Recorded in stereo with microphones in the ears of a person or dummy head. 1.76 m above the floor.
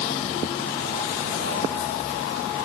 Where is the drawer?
I don't hear a drawer.